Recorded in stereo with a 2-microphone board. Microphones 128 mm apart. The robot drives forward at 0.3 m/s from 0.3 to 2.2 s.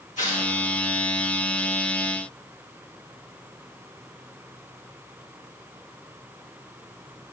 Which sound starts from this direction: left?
Tearing paper, at 0.2 s.